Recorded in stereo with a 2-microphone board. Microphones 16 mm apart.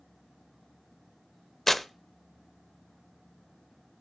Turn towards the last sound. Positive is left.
turn(degrees=20)  # may be behind; listen again after turning